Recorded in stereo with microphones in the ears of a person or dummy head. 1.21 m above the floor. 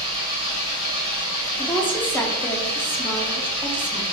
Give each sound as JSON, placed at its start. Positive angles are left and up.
{"t": 0.0, "sound": "an engine running", "side_deg": 75, "distance_m": 2.0}
{"t": 1.6, "sound": "a woman speaking", "side_deg": 10, "distance_m": 1.2}